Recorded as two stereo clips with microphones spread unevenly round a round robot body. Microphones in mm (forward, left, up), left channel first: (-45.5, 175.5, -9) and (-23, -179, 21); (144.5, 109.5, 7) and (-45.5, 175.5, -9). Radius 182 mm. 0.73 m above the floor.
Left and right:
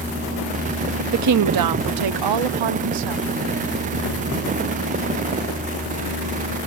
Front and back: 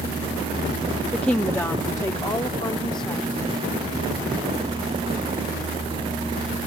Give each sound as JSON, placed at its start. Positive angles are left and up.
{"t": 1.1, "sound": "a woman speaking", "azimuth_deg": -110}